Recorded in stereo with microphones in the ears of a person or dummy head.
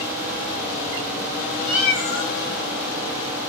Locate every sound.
1.6 s a cat meowing: 60° left (ahead or behind), 1.0 m